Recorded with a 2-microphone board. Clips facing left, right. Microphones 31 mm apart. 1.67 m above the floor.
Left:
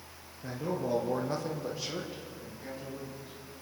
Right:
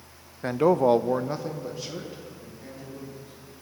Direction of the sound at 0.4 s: 60° right (ahead or behind).